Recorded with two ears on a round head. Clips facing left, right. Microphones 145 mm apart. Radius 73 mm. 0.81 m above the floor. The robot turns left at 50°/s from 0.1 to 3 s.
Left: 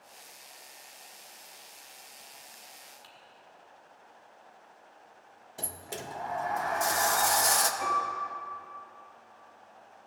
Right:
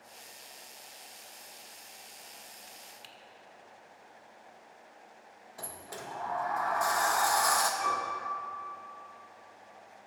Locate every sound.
3.0 s typing on a keyboard: 25° right (ahead or behind), 1.0 m
5.6 s a sliding door: 25° left (ahead or behind), 0.6 m
7.8 s a piano: 45° left (ahead or behind), 2.5 m